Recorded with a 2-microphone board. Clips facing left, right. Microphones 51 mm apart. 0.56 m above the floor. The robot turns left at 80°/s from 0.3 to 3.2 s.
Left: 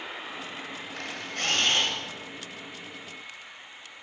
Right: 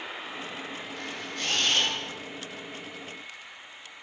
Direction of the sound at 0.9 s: 100° left.